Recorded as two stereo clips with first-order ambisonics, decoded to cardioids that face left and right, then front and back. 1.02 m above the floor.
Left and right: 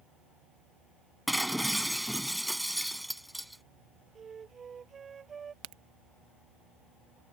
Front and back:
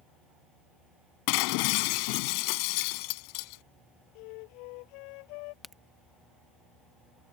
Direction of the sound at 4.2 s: 20° right.